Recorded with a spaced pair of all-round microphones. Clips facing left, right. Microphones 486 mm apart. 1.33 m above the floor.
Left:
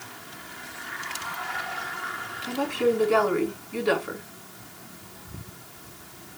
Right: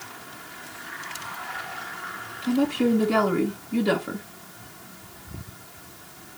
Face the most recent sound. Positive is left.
turn(degrees=-60)  # may be behind; listen again after turning